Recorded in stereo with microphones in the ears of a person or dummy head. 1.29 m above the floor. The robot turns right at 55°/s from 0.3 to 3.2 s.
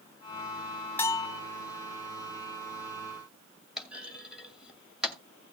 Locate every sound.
1.0 s a bell: 15° left (ahead or behind), 0.7 m; by 1.4 s 30° left (ahead or behind), 0.7 m
3.8 s a clunk: centre (ahead or behind), 2 m